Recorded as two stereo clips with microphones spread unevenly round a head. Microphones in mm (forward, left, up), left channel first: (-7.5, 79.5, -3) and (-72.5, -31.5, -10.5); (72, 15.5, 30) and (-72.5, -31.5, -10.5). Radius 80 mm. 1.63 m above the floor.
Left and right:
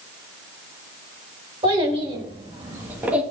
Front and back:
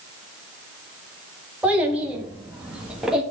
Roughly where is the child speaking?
Right.